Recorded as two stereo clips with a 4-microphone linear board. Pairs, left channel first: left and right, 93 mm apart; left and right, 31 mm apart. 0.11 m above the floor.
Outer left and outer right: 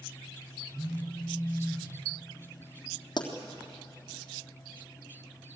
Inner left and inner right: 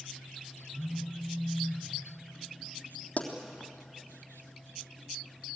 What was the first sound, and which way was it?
A phone buzzing, 5° right (ahead or behind).